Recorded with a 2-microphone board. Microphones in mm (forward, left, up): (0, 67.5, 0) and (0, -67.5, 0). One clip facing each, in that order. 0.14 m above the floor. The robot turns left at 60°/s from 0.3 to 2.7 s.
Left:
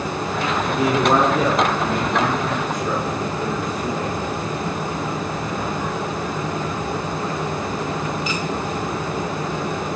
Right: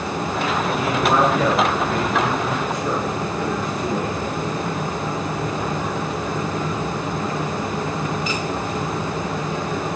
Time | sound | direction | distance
0.7 | a man speaking | 85° left | 1.9 m